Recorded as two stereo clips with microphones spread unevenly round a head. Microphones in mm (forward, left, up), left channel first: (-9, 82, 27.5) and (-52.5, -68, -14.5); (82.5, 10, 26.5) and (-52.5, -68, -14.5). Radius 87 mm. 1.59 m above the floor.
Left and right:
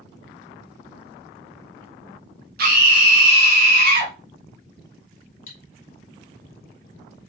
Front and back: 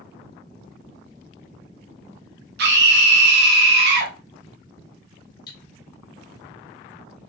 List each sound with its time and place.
2.6 s a scream: 135° right, 1.0 m
5.5 s cutlery clinking: 80° left, 1.3 m